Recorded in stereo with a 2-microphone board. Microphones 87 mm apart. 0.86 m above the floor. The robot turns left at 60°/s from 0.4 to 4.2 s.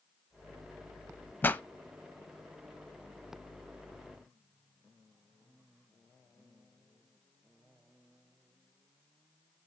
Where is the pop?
25° left (ahead or behind), 0.8 m; by 1.6 s 15° left (ahead or behind), 0.8 m.